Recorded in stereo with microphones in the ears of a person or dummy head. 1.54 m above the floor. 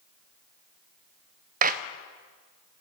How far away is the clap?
About 0.7 m.